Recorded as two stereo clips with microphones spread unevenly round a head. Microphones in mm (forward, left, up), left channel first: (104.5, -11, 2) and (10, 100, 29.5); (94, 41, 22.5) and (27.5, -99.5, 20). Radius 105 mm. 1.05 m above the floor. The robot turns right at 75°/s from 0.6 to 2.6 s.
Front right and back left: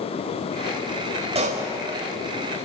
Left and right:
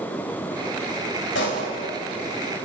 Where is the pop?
85° left, 3 m; by 1.7 s 110° left, 3 m.